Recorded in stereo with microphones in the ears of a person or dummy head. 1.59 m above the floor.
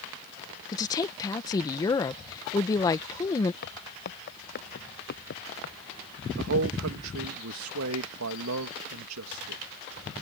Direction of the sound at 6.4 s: 85° right.